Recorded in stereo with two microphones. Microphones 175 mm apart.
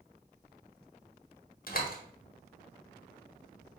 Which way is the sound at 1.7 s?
60° left (ahead or behind).